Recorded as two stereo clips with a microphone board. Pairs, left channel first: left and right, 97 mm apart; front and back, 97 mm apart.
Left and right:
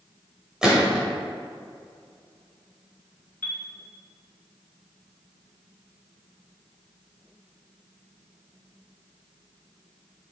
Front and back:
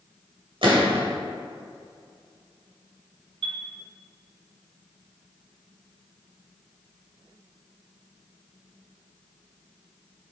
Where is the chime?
160° left, 0.8 m.